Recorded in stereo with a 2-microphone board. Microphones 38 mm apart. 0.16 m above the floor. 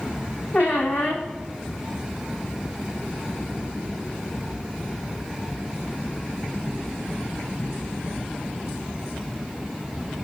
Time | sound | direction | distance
0.5 | a squeak | 65° left (ahead or behind) | 1.1 m